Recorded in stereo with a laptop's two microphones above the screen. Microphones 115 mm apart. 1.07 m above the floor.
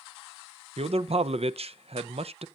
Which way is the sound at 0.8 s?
60° right (ahead or behind).